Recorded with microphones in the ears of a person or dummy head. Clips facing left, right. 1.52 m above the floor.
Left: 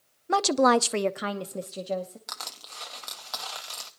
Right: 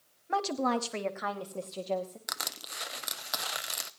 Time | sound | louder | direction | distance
0.3 | a woman speaking | left 8 dB | 55° left (ahead or behind) | 0.6 m
2.3 | crushing | right 1 dB | 25° right (ahead or behind) | 0.5 m